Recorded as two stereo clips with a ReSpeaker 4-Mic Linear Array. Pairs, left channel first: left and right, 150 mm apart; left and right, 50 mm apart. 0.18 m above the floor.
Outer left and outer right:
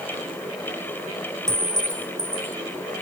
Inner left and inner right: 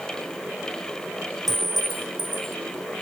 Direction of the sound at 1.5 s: 5° left (ahead or behind).